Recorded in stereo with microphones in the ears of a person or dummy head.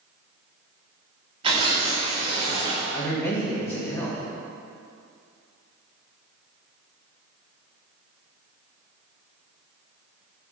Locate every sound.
1.4 s tearing paper: 30° right (ahead or behind), 1.4 m
2.9 s a man speaking: 10° left (ahead or behind), 1.3 m